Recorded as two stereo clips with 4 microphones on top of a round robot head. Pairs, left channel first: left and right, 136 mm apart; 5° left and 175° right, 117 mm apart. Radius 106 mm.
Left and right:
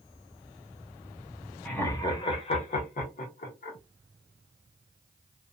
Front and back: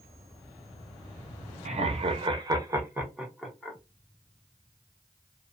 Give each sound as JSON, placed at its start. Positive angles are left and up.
{"t": 1.6, "sound": "laughter", "azimuth_deg": 170, "distance_m": 0.9}